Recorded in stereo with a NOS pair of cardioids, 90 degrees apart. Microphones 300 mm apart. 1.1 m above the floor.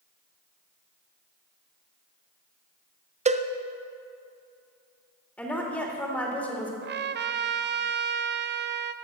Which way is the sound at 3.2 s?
25° right.